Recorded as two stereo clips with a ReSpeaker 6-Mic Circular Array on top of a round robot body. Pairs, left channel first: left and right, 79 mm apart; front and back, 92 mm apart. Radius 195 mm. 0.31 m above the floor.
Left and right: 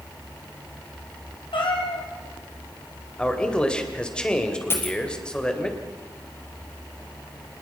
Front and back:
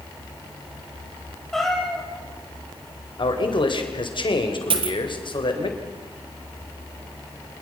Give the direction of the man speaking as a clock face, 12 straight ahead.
12 o'clock.